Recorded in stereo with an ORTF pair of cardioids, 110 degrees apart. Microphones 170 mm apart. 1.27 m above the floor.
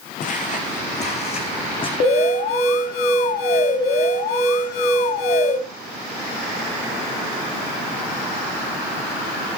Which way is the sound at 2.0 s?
65° left.